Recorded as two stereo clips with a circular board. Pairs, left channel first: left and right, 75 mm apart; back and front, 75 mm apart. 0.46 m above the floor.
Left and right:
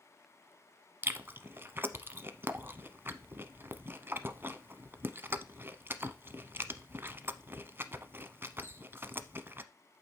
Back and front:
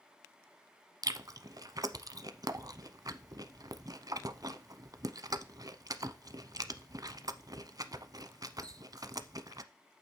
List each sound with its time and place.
1.0 s chewing: 30° right, 0.7 m